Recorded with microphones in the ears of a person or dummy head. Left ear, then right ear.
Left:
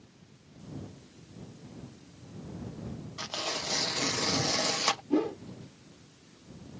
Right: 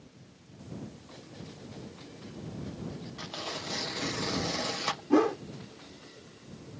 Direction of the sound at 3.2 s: 20° left (ahead or behind).